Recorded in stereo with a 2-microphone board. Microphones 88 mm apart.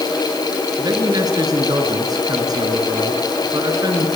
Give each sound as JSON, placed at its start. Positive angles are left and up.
{"t": 0.8, "sound": "a man speaking", "side_deg": -45, "distance_m": 6.0}